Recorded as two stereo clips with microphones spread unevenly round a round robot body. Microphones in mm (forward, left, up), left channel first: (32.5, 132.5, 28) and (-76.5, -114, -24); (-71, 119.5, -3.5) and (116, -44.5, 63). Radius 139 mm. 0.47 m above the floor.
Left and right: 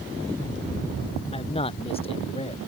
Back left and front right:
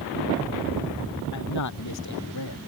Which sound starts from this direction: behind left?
A man speaking, at 1.3 s.